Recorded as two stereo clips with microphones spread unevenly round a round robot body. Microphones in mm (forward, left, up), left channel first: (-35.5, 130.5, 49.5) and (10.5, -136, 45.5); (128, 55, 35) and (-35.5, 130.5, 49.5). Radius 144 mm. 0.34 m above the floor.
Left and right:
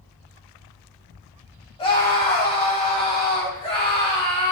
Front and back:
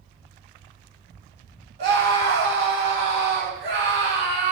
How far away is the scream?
About 3 m.